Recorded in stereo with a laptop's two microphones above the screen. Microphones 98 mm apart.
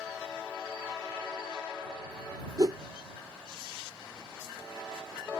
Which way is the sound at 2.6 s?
40° right (ahead or behind).